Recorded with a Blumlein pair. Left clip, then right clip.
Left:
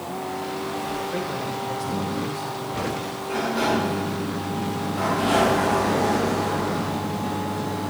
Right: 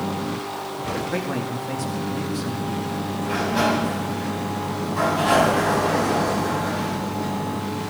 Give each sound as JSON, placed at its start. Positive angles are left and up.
{"t": 1.1, "sound": "a man speaking", "azimuth_deg": -40, "distance_m": 1.5}
{"t": 3.2, "sound": "a sliding door", "azimuth_deg": -65, "distance_m": 5.0}